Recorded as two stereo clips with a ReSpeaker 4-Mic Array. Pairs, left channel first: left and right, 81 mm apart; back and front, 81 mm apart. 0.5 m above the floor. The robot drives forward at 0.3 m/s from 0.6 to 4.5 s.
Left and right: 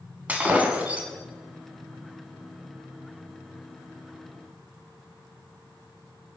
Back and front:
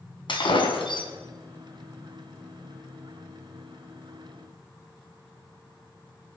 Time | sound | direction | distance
0.3 | breaking glass | 160° right | 2.5 m